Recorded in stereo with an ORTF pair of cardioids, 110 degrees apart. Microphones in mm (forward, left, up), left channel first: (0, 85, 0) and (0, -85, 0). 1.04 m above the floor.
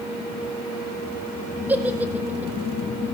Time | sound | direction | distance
1.7 | a giggle | 10° right | 1.7 m